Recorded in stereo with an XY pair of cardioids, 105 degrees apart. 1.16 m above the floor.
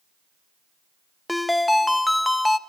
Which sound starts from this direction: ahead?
A ringtone, at 1.3 s.